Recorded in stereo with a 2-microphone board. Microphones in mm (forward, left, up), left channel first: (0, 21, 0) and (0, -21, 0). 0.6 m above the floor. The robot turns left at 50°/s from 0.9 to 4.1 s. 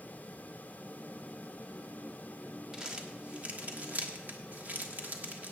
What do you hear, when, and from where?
2.7 s crumpling: 10° right (ahead or behind), 1.4 m; by 5.5 s 40° right (ahead or behind), 1.4 m